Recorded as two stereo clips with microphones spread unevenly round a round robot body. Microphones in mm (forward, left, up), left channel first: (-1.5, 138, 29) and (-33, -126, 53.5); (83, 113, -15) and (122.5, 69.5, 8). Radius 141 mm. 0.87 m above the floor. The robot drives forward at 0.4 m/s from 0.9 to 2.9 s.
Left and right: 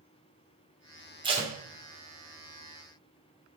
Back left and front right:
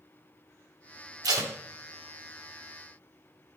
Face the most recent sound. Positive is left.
turn(degrees=-60)